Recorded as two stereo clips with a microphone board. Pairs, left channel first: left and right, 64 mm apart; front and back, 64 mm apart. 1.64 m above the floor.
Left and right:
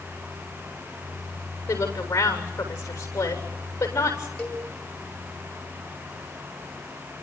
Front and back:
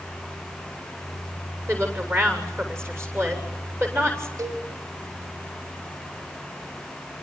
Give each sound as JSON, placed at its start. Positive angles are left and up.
{"t": 1.7, "sound": "a woman speaking", "azimuth_deg": 135, "distance_m": 7.5}
{"t": 4.4, "sound": "a cowbell", "azimuth_deg": 160, "distance_m": 5.5}